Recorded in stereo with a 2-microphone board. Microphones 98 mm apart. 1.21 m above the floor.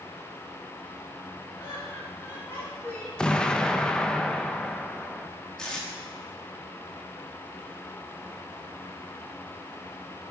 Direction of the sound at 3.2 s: 5° left (ahead or behind).